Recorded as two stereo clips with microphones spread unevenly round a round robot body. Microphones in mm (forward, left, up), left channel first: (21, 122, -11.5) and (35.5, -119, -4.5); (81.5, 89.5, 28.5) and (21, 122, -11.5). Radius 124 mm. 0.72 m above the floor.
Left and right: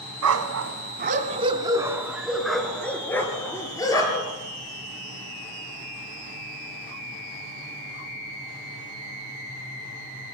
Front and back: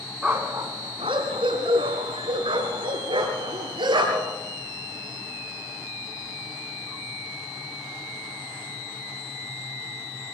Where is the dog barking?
110° right, 1.5 m; by 4.4 s 170° left, 4.5 m.